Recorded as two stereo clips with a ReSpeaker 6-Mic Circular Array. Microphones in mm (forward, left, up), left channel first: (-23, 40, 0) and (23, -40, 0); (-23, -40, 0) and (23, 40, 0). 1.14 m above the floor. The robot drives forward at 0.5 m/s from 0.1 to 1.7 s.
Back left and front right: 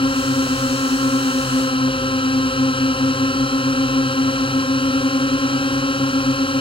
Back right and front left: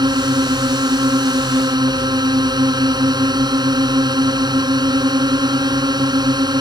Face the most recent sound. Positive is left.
turn(degrees=100)